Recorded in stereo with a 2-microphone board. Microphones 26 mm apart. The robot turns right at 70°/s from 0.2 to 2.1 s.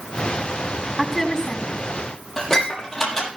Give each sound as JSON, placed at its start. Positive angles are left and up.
{"t": 1.0, "sound": "a woman speaking", "azimuth_deg": -10, "distance_m": 6.0}
{"t": 2.4, "sound": "dishes clattering", "side_deg": 15, "distance_m": 6.5}